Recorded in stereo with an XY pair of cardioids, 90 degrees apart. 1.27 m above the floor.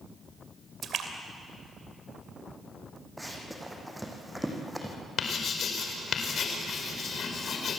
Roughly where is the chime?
No chime in this recording.